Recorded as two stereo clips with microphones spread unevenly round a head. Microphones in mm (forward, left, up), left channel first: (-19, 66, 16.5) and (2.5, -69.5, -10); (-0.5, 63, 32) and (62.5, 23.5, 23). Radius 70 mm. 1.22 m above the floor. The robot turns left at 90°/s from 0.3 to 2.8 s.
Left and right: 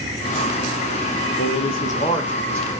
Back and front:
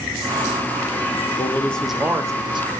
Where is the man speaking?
100° left, 0.7 m; by 2.7 s 15° right, 0.7 m.